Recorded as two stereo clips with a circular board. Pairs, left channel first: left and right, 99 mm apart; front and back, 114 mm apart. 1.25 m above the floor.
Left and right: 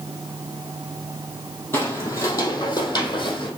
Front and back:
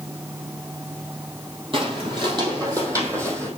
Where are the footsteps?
155° left, 2 m; by 3.5 s 115° left, 2.5 m.